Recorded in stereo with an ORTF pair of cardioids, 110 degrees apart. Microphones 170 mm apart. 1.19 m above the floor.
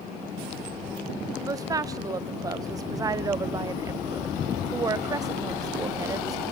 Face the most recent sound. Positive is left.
turn(degrees=-20)